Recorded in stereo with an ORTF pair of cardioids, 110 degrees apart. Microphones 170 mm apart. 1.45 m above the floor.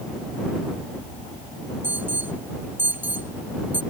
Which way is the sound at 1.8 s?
10° right.